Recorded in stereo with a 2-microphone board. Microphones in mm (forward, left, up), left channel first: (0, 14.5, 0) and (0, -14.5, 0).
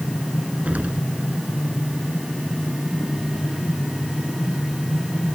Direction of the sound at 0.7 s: 55° right (ahead or behind).